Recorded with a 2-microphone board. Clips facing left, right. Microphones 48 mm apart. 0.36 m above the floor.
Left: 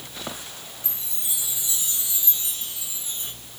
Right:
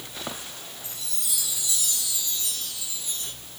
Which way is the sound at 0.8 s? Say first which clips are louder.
Right 1 dB; 25° left (ahead or behind).